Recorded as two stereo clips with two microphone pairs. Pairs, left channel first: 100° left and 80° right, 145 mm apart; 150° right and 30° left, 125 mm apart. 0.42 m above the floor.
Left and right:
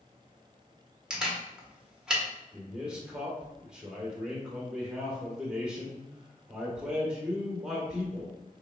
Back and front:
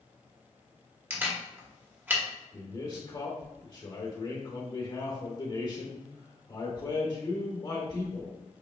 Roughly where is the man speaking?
Behind.